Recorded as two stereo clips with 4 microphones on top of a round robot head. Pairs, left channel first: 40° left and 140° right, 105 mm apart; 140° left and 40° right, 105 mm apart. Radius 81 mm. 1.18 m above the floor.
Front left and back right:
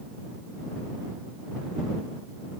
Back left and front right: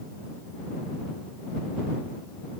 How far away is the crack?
No crack in this recording.